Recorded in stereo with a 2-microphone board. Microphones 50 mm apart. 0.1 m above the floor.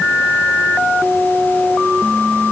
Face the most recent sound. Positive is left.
No sound to turn to.